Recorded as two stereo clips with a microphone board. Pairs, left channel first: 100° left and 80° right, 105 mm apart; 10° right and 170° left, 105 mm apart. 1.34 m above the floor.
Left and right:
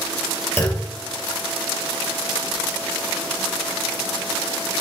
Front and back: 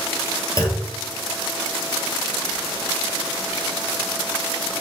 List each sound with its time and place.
0.6 s a clunk: 40° left, 1.7 m